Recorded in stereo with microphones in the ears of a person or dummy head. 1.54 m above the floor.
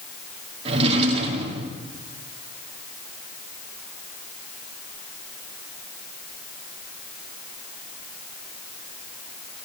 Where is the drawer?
30° right (ahead or behind), 2.5 m.